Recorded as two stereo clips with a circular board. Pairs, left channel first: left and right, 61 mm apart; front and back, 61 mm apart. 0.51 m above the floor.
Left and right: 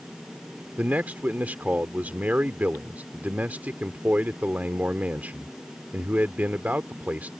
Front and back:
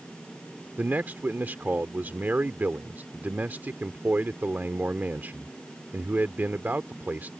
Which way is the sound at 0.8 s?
140° right.